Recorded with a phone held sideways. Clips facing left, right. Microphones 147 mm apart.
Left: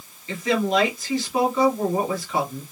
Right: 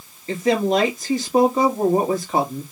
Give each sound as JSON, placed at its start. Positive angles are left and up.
{"t": 0.3, "sound": "a woman speaking", "side_deg": -45, "distance_m": 2.0}